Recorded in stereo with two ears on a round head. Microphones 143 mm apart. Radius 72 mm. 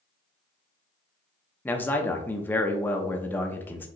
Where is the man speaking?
10° left (ahead or behind), 0.7 m.